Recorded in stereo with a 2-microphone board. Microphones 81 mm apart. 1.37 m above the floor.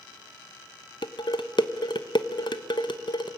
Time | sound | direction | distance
1.0 | dishes clattering | 65° left (ahead or behind) | 0.8 m